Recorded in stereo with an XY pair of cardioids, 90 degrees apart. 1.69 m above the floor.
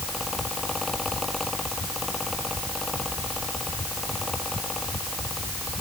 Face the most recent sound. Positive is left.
turn(degrees=25)